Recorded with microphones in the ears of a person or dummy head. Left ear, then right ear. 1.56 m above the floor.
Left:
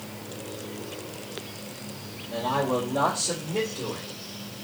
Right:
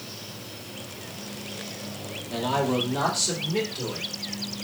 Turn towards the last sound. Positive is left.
turn(degrees=-50)  # may be behind; listen again after turning